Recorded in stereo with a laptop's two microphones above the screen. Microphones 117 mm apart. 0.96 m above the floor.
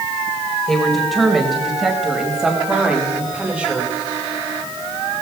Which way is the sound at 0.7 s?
5° left (ahead or behind).